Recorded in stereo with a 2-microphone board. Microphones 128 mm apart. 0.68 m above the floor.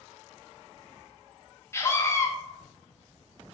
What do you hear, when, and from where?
1.7 s a scream: 20° left (ahead or behind), 0.6 m